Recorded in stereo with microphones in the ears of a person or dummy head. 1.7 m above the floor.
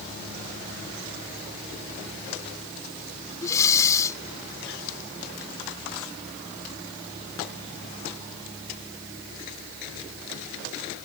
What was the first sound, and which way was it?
Breathing, 15° left (ahead or behind).